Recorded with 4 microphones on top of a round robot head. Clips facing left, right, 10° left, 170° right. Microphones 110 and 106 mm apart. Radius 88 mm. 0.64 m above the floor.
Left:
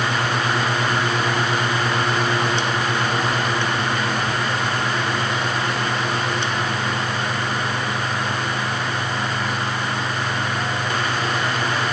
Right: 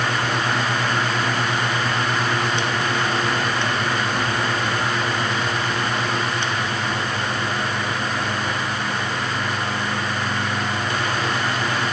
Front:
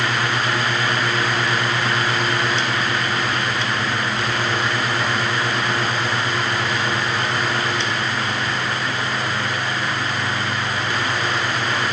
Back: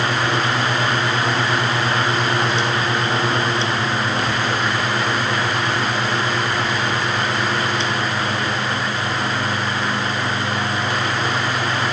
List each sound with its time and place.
Only background noise.